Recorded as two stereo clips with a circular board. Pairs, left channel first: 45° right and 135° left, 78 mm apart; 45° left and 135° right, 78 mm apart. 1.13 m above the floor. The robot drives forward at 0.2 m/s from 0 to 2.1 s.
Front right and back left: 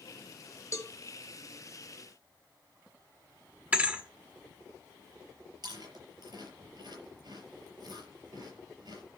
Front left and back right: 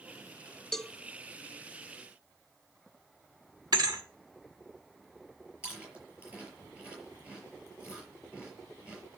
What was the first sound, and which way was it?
A cowbell, 35° right.